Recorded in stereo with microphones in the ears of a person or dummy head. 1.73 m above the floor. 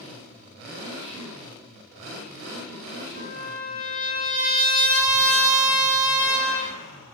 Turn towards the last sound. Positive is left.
turn(degrees=15)  # may be behind; listen again after turning